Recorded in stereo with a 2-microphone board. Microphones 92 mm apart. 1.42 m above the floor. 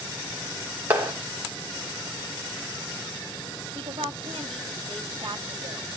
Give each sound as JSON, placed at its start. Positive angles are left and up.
{"t": 0.9, "sound": "a clap", "side_deg": -20, "distance_m": 3.5}
{"t": 3.8, "sound": "a woman speaking", "side_deg": -80, "distance_m": 2.5}